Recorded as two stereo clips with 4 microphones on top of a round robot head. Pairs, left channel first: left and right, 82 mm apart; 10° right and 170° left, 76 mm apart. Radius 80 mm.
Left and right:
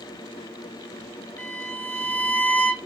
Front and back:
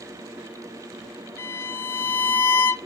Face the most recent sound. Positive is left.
turn(degrees=40)